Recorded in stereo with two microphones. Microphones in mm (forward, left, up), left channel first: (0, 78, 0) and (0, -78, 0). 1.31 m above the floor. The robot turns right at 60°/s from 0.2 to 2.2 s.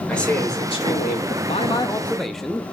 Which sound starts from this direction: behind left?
A man speaking, at 1.4 s.